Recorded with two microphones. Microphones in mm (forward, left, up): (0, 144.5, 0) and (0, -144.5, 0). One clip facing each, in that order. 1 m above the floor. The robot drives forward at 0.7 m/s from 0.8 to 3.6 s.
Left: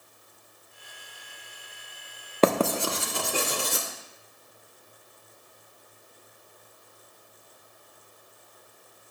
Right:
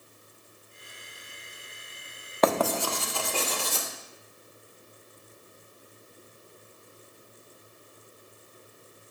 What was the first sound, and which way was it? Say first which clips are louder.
Writing: left 3 dB; 35° left (ahead or behind).